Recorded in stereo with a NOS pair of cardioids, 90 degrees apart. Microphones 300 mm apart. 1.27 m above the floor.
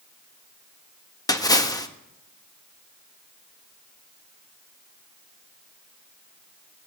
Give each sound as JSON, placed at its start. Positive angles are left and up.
{"t": 1.3, "sound": "a splash", "azimuth_deg": 10, "distance_m": 1.3}